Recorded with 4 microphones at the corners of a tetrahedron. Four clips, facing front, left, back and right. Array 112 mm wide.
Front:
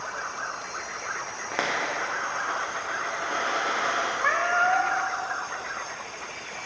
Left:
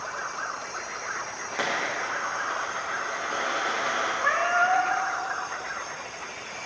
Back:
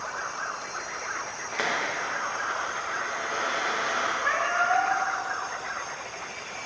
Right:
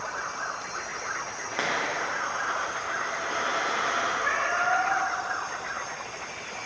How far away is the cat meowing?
About 1.8 m.